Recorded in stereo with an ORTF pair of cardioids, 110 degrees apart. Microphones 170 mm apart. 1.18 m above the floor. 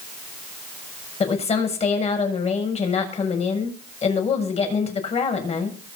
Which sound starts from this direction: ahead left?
A woman speaking, at 1.2 s.